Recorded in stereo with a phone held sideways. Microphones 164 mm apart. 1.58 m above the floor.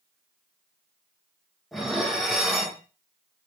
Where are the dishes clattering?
Centre (ahead or behind), 0.6 m.